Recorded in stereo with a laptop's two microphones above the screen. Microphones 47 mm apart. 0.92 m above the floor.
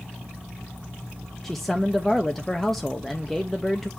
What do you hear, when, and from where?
1.4 s a man speaking: 5° left (ahead or behind), 0.8 m